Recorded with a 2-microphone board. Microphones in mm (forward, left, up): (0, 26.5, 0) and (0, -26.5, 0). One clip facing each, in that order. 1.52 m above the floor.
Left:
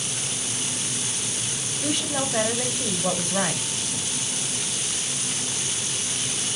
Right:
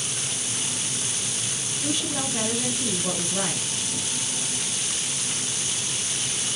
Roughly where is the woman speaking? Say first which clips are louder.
Left 2 dB; left.